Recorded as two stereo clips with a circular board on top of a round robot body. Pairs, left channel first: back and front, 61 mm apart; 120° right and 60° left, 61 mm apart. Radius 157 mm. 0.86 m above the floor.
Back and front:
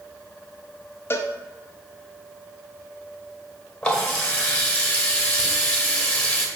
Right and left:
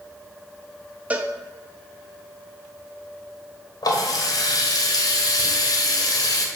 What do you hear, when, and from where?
1.1 s a cowbell: 130° left, 0.7 m
3.8 s a running tap: 105° right, 1.4 m